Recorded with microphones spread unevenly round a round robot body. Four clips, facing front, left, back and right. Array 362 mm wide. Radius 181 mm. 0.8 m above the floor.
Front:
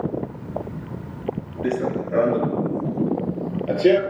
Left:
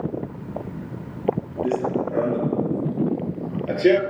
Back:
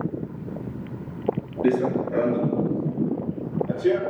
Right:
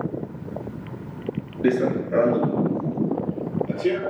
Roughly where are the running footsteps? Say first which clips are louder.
Right 3 dB, back 2 dB; right.